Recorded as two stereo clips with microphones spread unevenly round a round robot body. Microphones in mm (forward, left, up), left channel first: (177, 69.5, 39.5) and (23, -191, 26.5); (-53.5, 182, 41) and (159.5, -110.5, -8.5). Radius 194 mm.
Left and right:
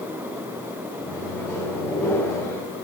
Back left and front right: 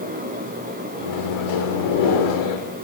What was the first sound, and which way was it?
A microwave, 145° left.